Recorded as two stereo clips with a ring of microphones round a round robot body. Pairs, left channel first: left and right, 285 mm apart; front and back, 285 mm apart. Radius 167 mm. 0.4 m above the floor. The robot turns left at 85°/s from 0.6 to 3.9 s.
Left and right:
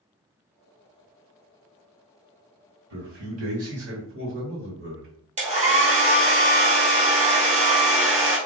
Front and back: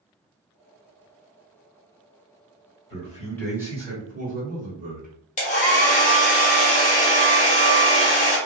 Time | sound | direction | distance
2.9 | a man speaking | 40° right | 1.9 m
5.4 | a hair dryer | 45° right | 1.1 m